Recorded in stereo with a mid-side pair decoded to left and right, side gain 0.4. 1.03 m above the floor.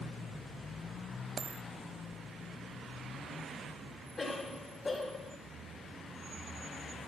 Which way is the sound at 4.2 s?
35° left.